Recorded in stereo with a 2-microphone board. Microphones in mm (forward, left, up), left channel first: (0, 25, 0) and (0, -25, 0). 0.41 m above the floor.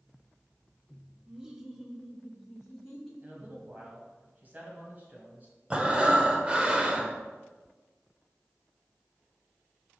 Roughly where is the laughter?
Centre.